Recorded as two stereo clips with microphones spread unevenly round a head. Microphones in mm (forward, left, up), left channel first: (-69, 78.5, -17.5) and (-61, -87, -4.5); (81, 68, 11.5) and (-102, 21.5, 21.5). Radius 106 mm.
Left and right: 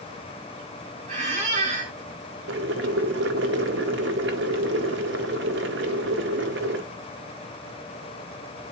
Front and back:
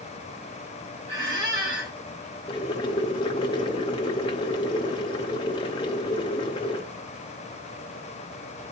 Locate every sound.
1.1 s a squeak: 125° right, 1.9 m
2.5 s boiling: 55° right, 0.6 m